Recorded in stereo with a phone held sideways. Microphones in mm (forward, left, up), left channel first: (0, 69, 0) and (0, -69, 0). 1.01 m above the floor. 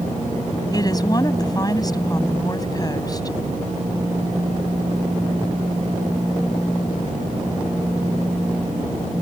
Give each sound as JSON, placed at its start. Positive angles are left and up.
{"t": 0.7, "sound": "a woman speaking", "side_deg": 25}